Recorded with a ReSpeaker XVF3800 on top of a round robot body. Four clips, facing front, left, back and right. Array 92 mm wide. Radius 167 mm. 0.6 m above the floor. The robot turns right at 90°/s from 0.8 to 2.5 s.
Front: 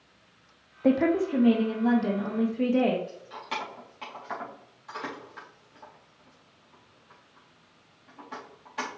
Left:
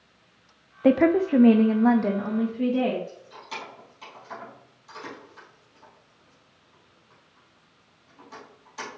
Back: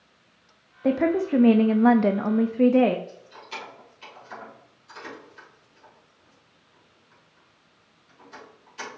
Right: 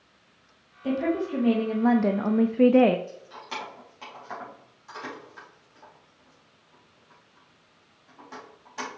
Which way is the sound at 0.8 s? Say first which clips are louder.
Left 7 dB, back 1 dB; 85° left.